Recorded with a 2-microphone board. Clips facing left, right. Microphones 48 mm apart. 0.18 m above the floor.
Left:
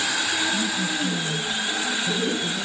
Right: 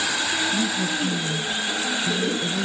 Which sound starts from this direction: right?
A woman speaking, at 0.5 s.